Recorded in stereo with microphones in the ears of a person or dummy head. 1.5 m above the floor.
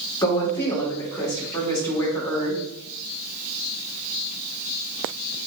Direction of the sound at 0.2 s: 15° left (ahead or behind).